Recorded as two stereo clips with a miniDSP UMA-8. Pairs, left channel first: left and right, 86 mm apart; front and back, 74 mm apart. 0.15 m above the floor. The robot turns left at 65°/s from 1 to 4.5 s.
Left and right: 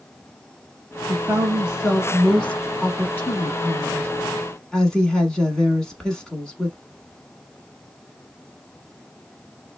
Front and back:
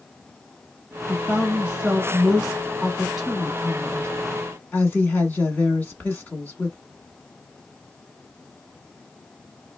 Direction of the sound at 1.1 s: 115° right.